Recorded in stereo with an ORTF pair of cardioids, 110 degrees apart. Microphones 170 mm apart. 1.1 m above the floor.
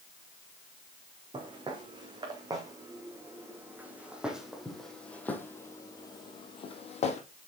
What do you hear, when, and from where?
1.3 s footsteps: 30° right, 3.5 m; by 7.2 s 50° left, 2 m